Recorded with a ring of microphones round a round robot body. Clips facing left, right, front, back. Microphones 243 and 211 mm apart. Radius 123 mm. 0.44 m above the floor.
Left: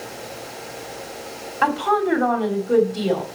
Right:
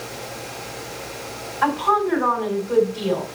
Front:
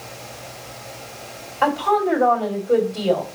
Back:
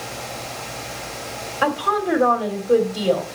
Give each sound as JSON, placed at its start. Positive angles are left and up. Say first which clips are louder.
{"t": 1.6, "sound": "a woman speaking", "louder": "left 1 dB, front 2 dB", "azimuth_deg": 105, "distance_m": 3.0}